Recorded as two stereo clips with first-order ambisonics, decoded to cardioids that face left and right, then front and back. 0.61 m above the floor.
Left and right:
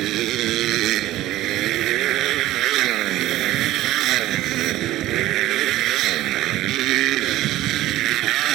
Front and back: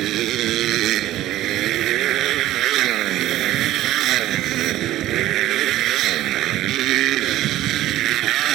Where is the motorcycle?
130° right.